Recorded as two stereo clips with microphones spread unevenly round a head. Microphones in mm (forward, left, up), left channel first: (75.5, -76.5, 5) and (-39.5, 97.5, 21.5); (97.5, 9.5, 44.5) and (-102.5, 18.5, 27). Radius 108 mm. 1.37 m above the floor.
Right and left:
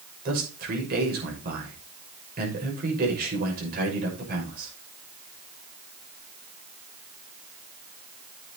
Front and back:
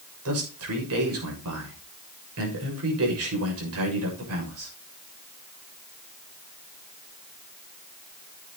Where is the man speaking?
175° left, 6.5 m.